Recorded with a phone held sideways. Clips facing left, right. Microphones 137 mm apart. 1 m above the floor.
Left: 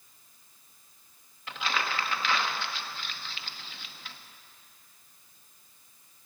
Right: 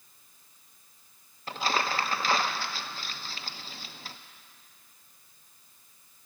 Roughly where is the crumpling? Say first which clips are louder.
Right 3 dB; right.